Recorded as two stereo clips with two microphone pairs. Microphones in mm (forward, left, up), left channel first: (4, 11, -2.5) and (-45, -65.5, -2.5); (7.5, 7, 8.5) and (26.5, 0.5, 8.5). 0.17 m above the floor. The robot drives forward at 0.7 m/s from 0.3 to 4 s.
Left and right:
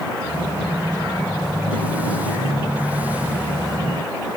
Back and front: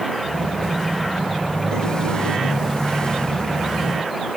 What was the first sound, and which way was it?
Only background noise.